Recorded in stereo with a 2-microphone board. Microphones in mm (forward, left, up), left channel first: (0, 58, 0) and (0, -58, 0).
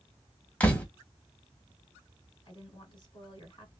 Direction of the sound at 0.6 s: 10° left (ahead or behind).